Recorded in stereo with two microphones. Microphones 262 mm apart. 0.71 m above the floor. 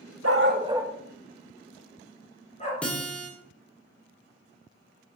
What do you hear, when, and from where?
0.2 s a dog barking: 70° right (ahead or behind), 0.7 m; by 2.7 s 25° left (ahead or behind), 3.5 m
2.8 s a guitar: 5° left (ahead or behind), 2 m